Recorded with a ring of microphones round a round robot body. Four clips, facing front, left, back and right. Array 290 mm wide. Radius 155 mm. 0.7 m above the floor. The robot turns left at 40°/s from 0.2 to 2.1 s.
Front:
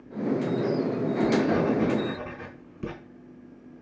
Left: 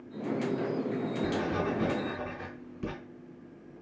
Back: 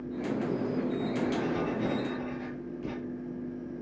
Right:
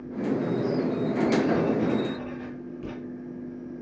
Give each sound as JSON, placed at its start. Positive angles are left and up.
{"t": 1.2, "sound": "writing", "azimuth_deg": 60, "distance_m": 5.0}